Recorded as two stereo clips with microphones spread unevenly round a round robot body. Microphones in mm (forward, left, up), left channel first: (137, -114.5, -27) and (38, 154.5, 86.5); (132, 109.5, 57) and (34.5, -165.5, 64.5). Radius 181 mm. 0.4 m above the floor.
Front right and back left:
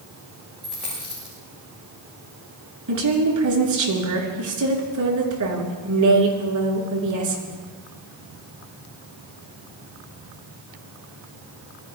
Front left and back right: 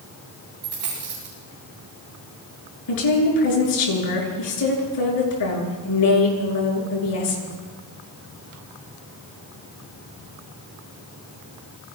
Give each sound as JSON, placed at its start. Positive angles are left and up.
{"t": 0.6, "sound": "a dropped coin", "azimuth_deg": -160, "distance_m": 7.5}
{"t": 2.9, "sound": "a woman speaking", "azimuth_deg": 85, "distance_m": 5.5}